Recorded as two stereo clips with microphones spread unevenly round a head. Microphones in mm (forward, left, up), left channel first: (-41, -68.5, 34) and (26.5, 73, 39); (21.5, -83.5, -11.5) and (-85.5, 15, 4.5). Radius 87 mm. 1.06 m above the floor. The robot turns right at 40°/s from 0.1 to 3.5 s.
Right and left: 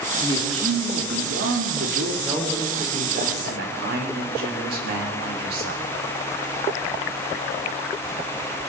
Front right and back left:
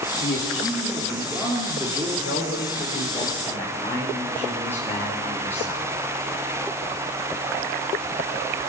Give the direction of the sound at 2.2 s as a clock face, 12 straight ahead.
12 o'clock.